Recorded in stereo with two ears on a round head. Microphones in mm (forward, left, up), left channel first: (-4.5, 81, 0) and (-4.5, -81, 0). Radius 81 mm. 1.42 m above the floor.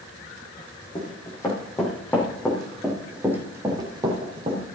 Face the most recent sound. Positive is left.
turn(degrees=-35)  # may be behind; listen again after turning